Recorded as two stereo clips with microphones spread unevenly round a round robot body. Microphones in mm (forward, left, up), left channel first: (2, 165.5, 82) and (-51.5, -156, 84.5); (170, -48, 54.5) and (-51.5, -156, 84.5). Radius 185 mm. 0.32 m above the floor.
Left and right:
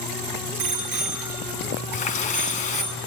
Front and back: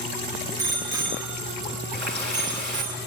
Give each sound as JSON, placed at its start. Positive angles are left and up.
{"t": 0.6, "sound": "a bicycle bell", "azimuth_deg": -130, "distance_m": 5.0}
{"t": 1.9, "sound": "a running tap", "azimuth_deg": 150, "distance_m": 3.0}